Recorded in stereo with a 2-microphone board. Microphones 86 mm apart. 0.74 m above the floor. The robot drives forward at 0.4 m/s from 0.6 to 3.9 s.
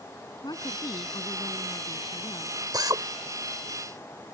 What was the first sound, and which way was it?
A woman speaking, 55° left (ahead or behind).